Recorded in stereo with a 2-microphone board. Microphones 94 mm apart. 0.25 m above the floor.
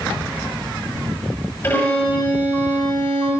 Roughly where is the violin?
Left.